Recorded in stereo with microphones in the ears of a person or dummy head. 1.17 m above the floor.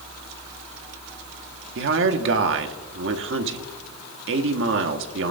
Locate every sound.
1.8 s a man speaking: 60° right (ahead or behind), 1.2 m